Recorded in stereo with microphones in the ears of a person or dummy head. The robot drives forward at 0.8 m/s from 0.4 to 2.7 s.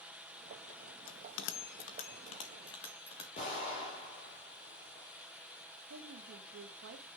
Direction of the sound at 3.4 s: 40° left (ahead or behind).